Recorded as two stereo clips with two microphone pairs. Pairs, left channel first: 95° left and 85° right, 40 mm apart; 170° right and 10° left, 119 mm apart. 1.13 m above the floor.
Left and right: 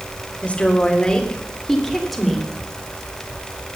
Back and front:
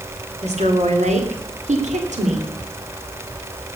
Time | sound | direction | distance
0.4 | a woman speaking | 35° left | 3 m